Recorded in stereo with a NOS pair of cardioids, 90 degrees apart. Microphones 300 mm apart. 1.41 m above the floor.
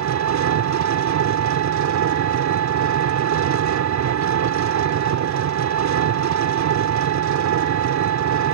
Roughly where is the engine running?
Ahead right.